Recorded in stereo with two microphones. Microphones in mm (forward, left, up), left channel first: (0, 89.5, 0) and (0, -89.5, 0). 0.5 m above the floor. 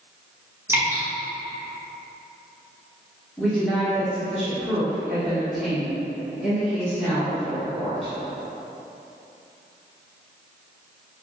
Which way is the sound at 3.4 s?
Centre (ahead or behind).